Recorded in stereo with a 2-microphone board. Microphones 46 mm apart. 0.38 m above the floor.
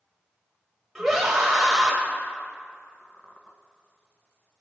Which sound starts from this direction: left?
A squeak, at 3.0 s.